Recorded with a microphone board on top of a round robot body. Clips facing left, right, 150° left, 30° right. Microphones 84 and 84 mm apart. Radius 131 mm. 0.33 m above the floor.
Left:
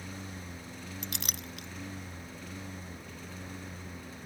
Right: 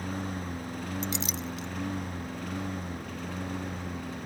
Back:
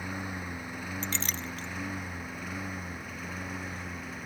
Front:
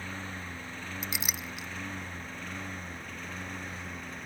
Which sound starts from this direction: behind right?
A lawn mower, at 0.0 s.